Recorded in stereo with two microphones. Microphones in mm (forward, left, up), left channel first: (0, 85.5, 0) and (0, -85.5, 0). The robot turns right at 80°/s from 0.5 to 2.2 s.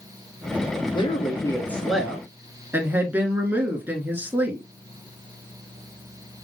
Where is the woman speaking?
30° left (ahead or behind), 1.3 m; by 4.6 s 10° right (ahead or behind), 1.3 m.